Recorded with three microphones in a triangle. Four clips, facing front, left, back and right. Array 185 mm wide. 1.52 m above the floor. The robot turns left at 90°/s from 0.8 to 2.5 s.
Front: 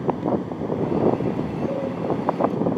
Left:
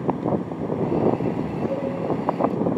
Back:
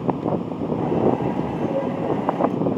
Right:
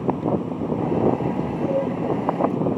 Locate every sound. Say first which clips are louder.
1.7 s a cowbell: right 4 dB, back 2 dB; 90° left, 2 m; by 1.9 s 75° left, 2 m